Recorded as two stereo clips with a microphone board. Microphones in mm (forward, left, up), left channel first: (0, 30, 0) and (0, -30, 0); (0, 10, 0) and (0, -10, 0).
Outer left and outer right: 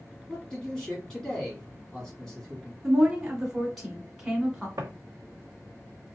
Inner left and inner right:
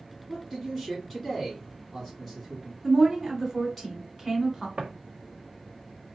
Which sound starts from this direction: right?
Footsteps, at 4.8 s.